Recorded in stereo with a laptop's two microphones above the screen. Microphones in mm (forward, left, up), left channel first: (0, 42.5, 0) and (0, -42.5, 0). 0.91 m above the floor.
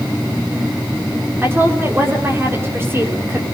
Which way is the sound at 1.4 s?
30° right (ahead or behind).